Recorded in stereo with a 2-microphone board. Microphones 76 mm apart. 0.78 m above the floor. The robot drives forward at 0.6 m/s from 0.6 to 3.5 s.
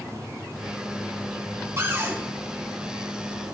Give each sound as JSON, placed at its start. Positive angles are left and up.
{"t": 1.8, "sound": "a cupboard door", "side_deg": -30, "distance_m": 7.0}